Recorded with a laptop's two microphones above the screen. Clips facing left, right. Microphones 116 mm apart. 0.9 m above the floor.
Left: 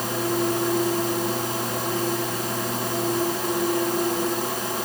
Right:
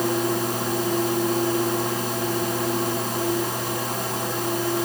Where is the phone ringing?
No phone ringing in this recording.